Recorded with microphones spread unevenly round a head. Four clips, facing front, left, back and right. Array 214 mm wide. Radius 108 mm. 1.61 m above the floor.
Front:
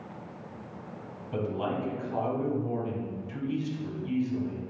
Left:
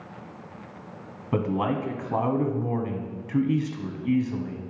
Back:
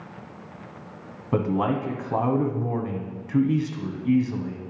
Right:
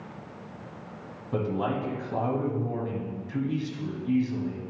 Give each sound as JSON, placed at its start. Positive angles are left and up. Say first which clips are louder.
{"t": 1.3, "sound": "a man speaking", "louder": "left 3 dB, back 7 dB", "azimuth_deg": 150, "distance_m": 1.2}